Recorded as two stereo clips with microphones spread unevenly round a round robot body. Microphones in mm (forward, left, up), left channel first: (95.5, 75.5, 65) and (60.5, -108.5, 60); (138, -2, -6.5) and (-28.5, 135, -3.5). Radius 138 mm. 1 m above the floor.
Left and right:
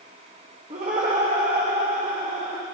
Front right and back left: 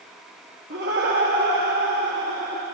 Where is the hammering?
No hammering in this recording.